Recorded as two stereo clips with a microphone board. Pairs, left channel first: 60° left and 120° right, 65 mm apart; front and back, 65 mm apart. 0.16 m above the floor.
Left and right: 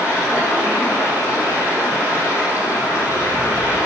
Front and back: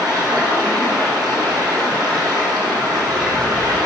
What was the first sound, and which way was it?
Running water, 175° left.